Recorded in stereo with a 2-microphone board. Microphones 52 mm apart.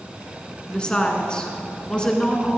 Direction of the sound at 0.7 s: 20° left (ahead or behind).